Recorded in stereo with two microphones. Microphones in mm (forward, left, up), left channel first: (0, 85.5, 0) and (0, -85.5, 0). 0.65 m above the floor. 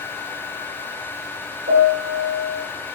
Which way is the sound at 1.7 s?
65° right (ahead or behind).